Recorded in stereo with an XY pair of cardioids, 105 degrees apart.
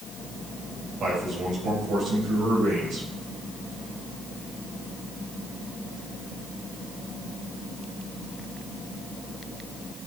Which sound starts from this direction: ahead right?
A man speaking, at 1.0 s.